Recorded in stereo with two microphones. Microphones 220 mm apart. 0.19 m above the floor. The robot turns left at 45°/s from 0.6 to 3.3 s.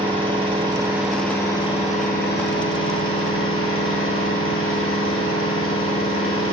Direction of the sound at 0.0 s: 155° right.